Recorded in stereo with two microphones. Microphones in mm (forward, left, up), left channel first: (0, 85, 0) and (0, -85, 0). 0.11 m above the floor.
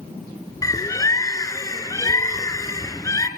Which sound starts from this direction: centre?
A bird, at 0.6 s.